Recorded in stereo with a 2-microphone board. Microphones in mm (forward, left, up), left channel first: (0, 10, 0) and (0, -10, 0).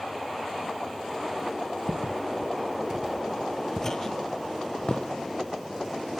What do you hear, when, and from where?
1.9 s footsteps: 45° right (ahead or behind), 1.7 m; by 5.1 s 45° left (ahead or behind), 2.5 m